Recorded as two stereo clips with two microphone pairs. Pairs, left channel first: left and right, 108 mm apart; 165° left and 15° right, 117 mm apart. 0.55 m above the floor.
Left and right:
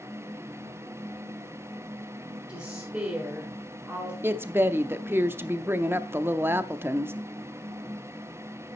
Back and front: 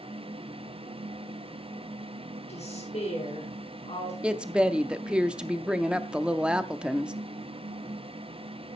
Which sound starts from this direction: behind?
A woman speaking, at 2.5 s.